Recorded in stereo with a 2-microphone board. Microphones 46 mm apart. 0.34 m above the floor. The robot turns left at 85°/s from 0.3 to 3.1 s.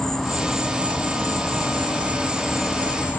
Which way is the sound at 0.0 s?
10° left.